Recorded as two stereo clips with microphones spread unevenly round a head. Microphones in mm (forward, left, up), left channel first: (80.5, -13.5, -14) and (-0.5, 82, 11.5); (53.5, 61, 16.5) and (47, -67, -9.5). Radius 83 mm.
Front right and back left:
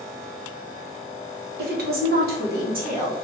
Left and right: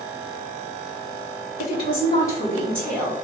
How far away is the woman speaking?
About 1.4 m.